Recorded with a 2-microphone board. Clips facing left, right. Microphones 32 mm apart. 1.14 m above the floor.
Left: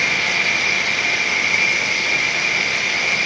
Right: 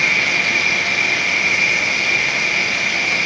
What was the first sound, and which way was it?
An insect, 35° right (ahead or behind).